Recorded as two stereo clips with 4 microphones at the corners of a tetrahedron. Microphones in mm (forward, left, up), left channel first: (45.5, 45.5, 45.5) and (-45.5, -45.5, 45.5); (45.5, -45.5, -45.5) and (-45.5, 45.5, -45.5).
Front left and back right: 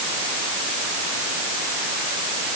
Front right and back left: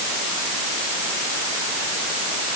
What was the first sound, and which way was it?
Only background noise.